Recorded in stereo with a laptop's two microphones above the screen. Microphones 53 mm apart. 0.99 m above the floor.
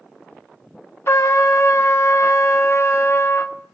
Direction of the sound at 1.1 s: 55° left (ahead or behind).